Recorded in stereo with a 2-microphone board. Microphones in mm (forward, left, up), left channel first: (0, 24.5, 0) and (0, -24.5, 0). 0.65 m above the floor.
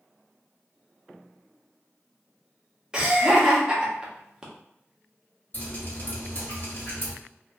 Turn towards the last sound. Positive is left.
turn(degrees=50)  # may be behind; listen again after turning